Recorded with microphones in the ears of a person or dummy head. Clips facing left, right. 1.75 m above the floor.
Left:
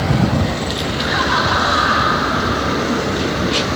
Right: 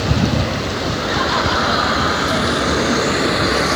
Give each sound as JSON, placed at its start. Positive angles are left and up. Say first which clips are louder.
{"t": 1.0, "sound": "laughter", "louder": "even", "side_deg": 80, "distance_m": 6.5}